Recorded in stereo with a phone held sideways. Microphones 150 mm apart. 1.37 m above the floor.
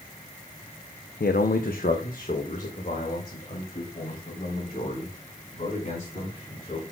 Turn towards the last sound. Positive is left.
turn(degrees=45)  # may be behind; listen again after turning